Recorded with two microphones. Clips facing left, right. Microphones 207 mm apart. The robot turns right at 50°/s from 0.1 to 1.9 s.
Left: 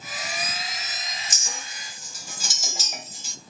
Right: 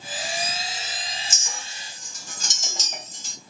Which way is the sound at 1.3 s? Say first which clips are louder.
Even; 40° left (ahead or behind).